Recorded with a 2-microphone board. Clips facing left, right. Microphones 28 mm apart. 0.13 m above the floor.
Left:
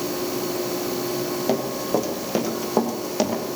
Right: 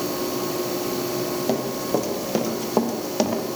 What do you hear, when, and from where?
1.5 s running footsteps: 5° left (ahead or behind), 6 m; by 3.4 s 5° right (ahead or behind), 6.5 m